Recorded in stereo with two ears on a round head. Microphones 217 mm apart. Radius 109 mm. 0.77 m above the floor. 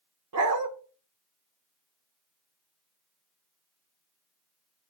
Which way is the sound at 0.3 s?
70° right (ahead or behind).